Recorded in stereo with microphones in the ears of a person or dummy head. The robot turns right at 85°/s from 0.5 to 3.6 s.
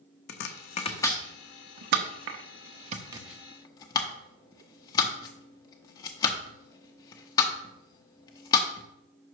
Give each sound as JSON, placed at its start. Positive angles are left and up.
{"t": 0.3, "sound": "chopping", "side_deg": 60, "distance_m": 0.7}